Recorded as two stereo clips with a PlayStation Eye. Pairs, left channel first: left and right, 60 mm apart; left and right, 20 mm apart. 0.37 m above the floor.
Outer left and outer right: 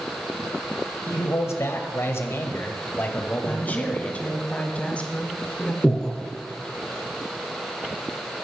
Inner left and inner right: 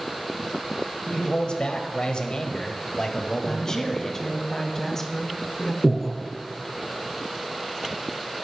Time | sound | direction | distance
1.1 | a man speaking | 55° left (ahead or behind) | 1.4 m
3.5 | a woman speaking | 20° left (ahead or behind) | 2 m
5.8 | breathing | 15° left (ahead or behind) | 2.0 m